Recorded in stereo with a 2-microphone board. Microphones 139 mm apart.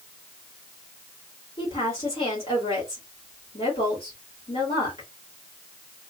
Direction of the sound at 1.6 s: 40° left (ahead or behind).